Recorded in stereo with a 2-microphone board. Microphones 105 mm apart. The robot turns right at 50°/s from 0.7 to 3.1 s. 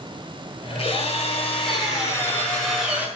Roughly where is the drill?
Left.